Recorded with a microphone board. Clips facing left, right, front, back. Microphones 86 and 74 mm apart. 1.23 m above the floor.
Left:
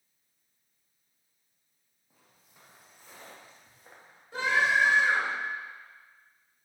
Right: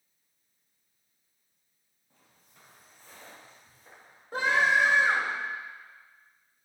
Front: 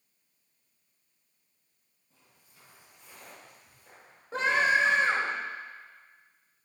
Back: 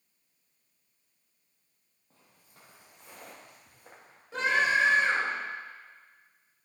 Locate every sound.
2.1 s footsteps: 170° left, 2 m; by 4.2 s 160° left, 3 m
4.3 s a scream: 50° right, 2.5 m